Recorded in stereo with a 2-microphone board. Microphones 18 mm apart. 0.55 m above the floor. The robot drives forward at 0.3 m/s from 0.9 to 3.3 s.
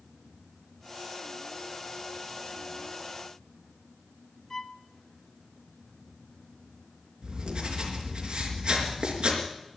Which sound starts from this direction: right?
Writing, at 7.2 s.